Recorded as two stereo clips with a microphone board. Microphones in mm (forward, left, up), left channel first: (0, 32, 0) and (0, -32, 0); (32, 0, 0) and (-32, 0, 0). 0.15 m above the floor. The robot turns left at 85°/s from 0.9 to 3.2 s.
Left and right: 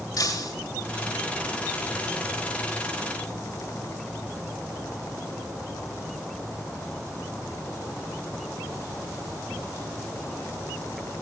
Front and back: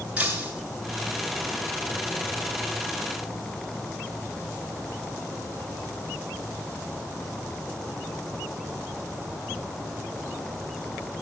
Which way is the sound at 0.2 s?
110° left.